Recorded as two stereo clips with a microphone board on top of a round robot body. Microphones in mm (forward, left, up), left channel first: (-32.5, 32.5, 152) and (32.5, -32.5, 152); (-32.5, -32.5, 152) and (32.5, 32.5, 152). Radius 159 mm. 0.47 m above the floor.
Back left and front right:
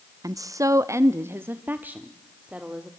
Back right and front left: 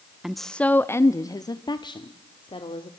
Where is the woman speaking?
40° right, 1.0 m; by 2.9 s 125° right, 2 m.